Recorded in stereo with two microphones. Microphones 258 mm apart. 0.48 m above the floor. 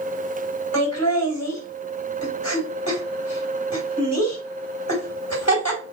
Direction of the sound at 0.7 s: 70° left (ahead or behind).